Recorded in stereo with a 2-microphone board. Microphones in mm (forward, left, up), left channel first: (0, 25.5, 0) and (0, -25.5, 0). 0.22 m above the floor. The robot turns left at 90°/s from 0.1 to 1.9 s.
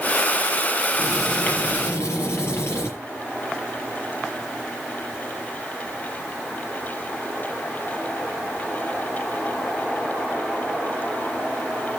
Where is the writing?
165° right, 5.5 m; by 2.9 s 115° left, 5.5 m.